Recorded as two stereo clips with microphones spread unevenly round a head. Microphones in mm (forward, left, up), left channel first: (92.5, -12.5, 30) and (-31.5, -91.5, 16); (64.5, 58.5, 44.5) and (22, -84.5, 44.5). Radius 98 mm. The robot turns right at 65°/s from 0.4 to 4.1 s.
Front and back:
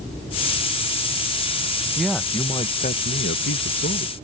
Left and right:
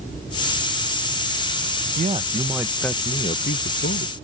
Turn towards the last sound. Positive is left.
turn(degrees=75)